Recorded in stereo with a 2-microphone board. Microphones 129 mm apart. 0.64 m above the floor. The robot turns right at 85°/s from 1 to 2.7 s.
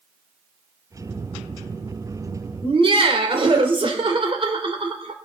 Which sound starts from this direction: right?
Laughter, at 2.6 s.